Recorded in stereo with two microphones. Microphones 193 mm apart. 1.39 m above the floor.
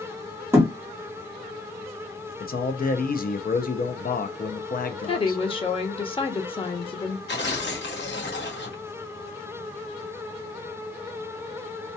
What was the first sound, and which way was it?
A thud, 15° right (ahead or behind).